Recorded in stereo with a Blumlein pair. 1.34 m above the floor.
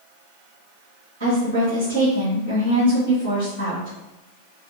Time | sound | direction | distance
1.2 | a woman speaking | 60° right | 1.7 m